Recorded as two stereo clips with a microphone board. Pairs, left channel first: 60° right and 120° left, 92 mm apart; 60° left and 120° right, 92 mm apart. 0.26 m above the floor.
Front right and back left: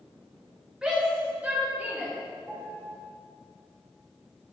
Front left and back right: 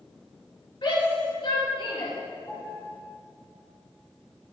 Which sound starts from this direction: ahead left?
A shout, at 0.8 s.